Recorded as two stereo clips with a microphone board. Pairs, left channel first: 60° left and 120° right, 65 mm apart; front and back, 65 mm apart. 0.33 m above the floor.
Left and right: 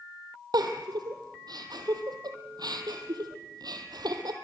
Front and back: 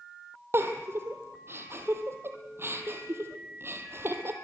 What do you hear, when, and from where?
0.5 s a giggle: 125° right, 2 m